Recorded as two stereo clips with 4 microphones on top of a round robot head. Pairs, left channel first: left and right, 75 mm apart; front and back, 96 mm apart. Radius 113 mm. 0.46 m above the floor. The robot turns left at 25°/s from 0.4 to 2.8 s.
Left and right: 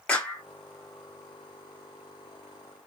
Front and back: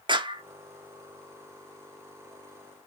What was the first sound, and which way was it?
A clap, 160° left.